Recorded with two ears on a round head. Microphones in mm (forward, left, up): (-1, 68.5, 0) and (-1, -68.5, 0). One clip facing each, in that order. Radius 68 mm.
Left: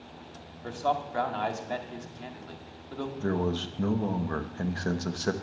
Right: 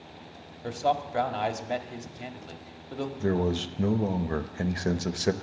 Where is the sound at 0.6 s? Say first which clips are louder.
Right 2 dB; 20° right (ahead or behind), 1.5 m.